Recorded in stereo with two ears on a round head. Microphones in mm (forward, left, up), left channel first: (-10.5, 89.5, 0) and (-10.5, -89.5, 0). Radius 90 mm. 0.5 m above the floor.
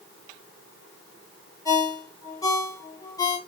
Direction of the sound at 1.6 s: 20° left (ahead or behind).